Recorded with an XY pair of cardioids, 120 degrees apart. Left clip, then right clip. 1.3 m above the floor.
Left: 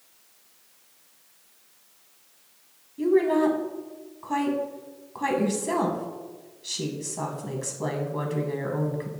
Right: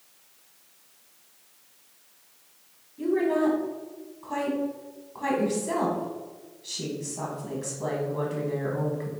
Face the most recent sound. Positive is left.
turn(degrees=40)